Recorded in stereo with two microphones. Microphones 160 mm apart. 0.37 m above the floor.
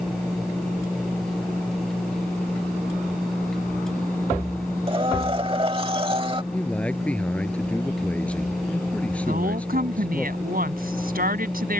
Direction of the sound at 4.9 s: 35° right (ahead or behind).